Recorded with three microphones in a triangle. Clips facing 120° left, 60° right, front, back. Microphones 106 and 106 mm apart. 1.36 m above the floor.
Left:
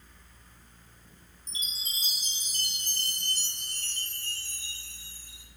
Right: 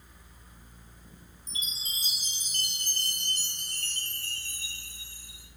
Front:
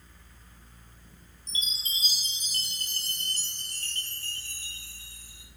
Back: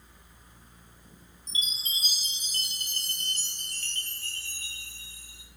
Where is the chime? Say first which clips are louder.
Right 1 dB, back 1 dB; 55° right, 0.8 m.